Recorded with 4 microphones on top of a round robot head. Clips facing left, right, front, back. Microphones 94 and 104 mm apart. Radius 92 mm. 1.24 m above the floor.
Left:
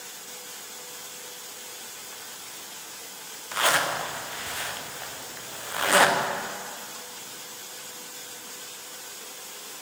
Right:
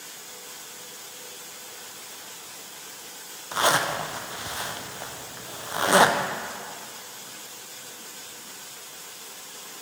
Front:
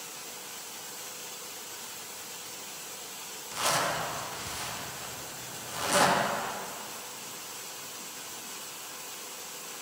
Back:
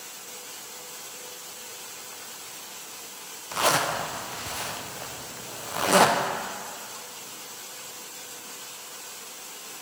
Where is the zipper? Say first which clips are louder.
Right 2 dB, back 5 dB; 155° right, 0.7 m.